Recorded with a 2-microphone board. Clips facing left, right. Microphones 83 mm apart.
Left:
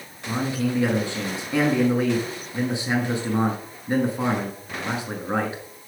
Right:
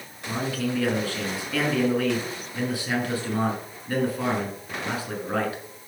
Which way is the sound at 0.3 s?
25° left (ahead or behind).